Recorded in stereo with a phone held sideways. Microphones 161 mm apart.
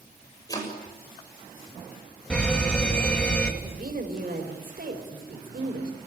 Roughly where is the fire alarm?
Centre.